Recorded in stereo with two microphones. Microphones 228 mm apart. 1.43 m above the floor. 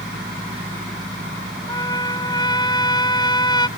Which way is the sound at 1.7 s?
20° left (ahead or behind).